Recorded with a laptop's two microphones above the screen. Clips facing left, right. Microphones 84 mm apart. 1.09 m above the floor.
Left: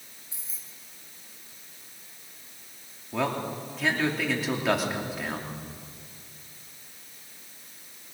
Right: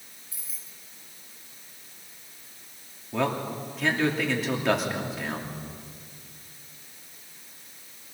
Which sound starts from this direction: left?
Keys jangling, at 0.3 s.